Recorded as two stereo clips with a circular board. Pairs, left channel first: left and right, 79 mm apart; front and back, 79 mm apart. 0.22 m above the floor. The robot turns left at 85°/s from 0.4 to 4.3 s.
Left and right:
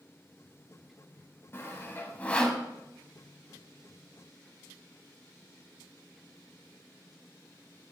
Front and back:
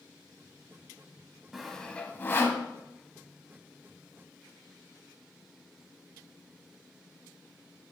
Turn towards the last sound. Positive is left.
turn(degrees=-135)